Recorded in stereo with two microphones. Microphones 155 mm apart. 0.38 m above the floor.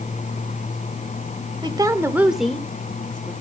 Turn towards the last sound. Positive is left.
turn(degrees=30)  # may be behind; listen again after turning